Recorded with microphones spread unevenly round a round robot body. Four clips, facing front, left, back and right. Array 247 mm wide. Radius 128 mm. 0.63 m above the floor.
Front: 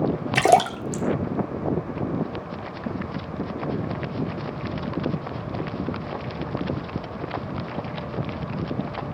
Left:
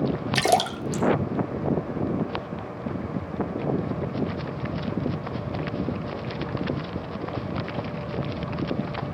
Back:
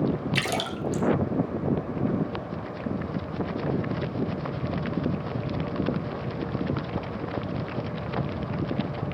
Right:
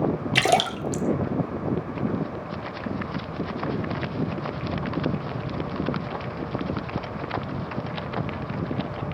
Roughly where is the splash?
Ahead.